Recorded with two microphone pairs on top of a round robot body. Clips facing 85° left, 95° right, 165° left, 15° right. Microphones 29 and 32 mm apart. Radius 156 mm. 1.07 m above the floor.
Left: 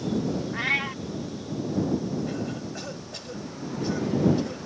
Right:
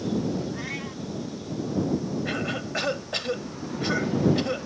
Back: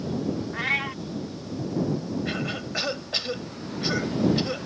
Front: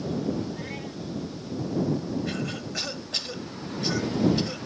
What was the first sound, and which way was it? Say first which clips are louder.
A cat meowing: left 7 dB, back 9 dB; 130° left.